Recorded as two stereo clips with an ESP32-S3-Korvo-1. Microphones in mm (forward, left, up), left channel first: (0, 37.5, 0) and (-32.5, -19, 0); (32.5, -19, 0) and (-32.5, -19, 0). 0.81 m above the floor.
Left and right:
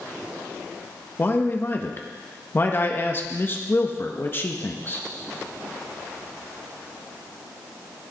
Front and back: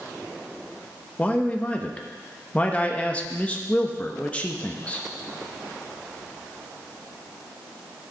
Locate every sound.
1.2 s a man speaking: 50° left, 0.9 m